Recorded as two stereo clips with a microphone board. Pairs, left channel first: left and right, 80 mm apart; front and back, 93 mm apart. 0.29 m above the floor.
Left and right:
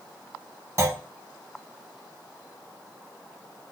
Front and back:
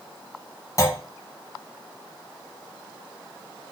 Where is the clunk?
45° right, 0.6 m.